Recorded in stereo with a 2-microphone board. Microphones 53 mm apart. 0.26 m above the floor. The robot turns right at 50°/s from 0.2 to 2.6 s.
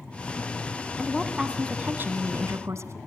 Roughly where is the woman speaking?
Behind.